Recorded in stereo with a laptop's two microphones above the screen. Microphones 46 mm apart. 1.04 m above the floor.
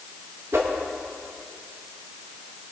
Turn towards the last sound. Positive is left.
turn(degrees=-60)  # may be behind; listen again after turning